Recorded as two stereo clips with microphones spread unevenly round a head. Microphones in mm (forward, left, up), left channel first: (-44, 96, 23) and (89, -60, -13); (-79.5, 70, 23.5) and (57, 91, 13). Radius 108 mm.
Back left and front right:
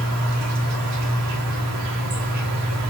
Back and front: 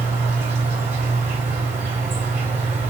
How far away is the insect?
About 0.9 m.